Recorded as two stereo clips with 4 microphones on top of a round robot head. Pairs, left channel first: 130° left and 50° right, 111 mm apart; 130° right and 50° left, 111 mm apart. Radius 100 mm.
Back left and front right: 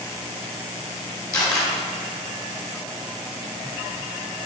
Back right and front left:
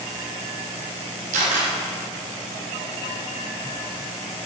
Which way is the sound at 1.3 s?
65° left.